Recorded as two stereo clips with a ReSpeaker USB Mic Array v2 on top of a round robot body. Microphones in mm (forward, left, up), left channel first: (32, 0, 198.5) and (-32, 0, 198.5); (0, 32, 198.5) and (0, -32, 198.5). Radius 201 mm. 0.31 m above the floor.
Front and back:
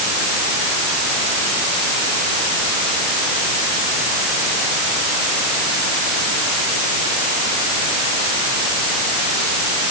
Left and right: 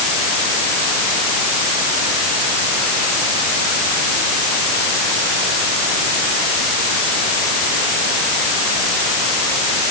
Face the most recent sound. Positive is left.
No sound to turn to.